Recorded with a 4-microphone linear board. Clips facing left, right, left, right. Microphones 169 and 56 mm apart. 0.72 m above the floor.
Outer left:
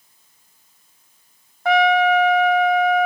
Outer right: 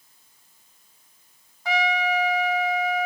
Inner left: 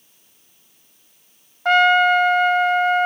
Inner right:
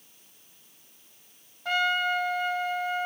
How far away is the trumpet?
About 0.8 m.